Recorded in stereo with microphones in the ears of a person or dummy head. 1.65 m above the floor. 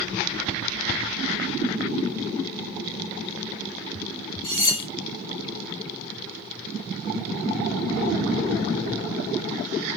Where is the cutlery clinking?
25° left (ahead or behind), 1.6 m.